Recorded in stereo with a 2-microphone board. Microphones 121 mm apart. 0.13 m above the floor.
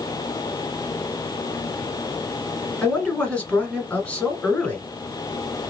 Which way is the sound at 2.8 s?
10° left (ahead or behind).